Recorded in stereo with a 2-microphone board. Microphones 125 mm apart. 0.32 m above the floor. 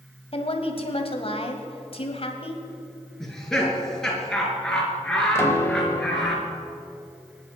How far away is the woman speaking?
About 1.9 m.